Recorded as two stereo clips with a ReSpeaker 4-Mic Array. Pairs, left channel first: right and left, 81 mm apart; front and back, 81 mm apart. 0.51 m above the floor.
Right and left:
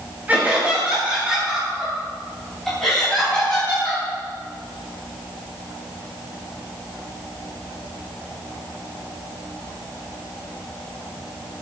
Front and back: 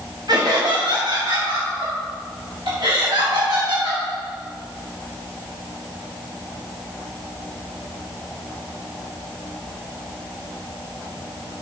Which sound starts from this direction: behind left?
Laughter, at 0.3 s.